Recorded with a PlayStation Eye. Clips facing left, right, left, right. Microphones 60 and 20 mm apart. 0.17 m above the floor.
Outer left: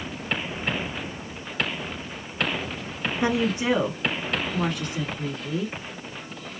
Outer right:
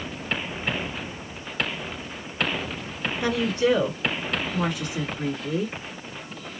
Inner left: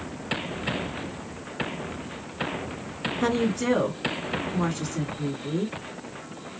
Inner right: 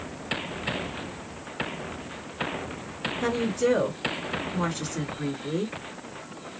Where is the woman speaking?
25° left (ahead or behind), 1.7 m; by 5.8 s 25° right (ahead or behind), 1.7 m.